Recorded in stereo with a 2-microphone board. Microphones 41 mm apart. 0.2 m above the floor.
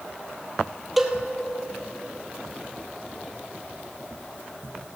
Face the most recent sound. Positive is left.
turn(degrees=-5)  # may be behind; listen again after turning